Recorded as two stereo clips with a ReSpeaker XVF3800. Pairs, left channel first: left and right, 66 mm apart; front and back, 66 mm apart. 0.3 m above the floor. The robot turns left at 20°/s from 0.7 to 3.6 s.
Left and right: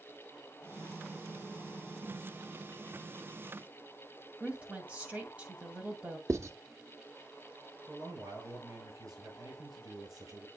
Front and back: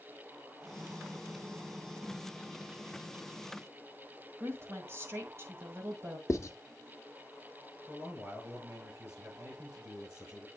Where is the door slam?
I don't hear a door slam.